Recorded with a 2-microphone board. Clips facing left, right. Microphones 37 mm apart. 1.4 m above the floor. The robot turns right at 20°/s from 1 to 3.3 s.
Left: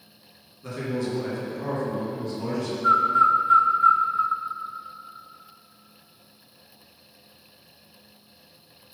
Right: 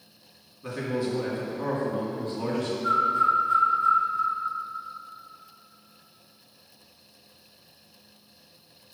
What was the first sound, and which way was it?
A man speaking, 165° right.